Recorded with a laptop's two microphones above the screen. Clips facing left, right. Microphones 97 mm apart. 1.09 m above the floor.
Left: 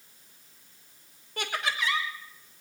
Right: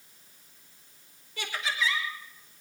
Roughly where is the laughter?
Left.